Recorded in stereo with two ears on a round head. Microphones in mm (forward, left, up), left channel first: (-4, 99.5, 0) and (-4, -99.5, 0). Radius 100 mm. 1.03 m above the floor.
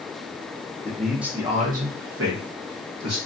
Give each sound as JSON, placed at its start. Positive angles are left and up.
{"t": 0.8, "sound": "a man speaking", "side_deg": 10, "distance_m": 0.8}